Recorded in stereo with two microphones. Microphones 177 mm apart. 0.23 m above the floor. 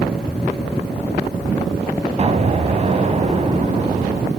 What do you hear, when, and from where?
2.2 s an explosion: 40° right (ahead or behind), 1.1 m